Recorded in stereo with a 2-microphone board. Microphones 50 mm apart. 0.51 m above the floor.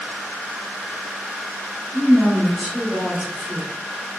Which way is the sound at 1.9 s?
5° left (ahead or behind).